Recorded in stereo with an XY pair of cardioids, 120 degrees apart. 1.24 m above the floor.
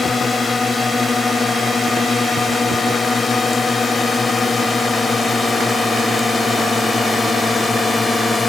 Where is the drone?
25° left; by 8.5 s 20° left.